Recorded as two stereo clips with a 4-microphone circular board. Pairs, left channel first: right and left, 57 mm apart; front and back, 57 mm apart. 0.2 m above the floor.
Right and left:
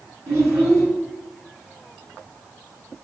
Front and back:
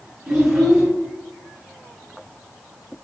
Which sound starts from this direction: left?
A child speaking, at 0.3 s.